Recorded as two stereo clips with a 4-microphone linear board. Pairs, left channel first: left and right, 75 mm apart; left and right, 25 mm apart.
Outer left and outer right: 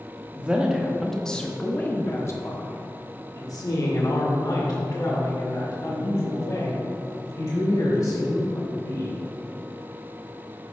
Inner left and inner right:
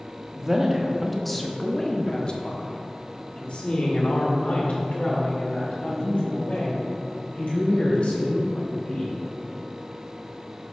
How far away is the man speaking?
About 1.0 m.